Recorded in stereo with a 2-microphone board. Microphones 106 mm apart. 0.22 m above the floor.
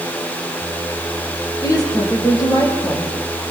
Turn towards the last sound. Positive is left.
turn(degrees=35)  # may be behind; listen again after turning